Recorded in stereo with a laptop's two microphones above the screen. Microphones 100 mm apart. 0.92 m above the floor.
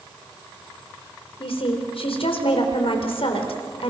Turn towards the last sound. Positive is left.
turn(degrees=80)